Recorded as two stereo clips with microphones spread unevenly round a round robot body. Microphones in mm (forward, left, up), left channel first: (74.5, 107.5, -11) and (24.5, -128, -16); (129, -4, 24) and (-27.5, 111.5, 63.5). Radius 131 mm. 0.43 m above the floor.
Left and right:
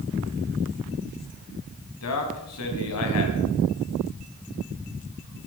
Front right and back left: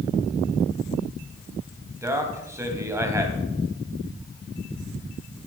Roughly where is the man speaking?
Ahead left.